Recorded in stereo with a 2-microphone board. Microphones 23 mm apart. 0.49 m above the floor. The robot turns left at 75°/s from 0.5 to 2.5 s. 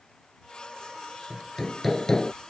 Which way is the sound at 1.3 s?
145° right.